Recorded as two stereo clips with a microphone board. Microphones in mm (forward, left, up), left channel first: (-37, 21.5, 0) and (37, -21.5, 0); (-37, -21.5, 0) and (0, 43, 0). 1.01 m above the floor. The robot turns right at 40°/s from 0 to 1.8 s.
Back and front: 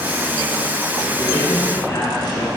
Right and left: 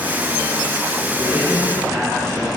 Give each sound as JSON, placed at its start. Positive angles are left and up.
{"t": 1.2, "sound": "a man speaking", "azimuth_deg": 130, "distance_m": 3.5}